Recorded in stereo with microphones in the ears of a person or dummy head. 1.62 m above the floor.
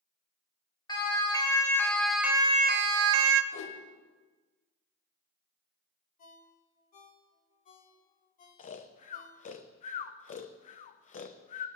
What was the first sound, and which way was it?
A siren, 20° left (ahead or behind).